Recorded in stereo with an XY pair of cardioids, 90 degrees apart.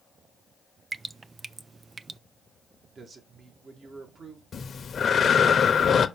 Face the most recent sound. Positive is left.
turn(degrees=50)